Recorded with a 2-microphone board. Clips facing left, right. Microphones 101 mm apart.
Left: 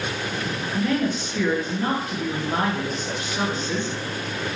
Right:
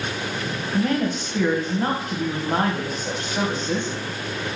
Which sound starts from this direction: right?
A woman speaking, at 0.7 s.